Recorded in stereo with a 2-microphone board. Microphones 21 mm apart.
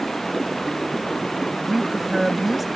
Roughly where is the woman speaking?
Centre.